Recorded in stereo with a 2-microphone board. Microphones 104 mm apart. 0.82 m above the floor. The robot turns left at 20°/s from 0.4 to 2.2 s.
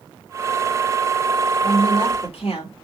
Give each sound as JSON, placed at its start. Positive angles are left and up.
{"t": 1.6, "sound": "a woman speaking", "side_deg": 65, "distance_m": 1.9}